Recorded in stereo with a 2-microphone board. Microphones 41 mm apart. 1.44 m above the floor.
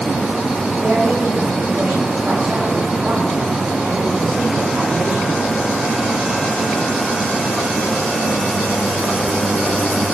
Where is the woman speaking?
50° right (ahead or behind), 5.5 m; by 5.5 s 75° right (ahead or behind), 5 m.